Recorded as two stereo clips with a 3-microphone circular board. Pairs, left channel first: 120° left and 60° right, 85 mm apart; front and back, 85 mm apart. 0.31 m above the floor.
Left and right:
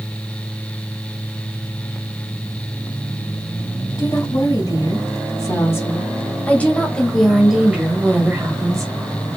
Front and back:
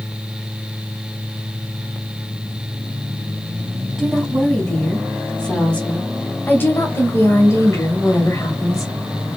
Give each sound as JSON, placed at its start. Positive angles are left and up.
{"t": 4.0, "sound": "a woman speaking", "azimuth_deg": 85, "distance_m": 2.0}